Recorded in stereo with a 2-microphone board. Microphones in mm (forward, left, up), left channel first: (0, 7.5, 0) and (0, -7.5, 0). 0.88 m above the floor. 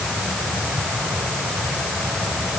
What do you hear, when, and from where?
Only background noise.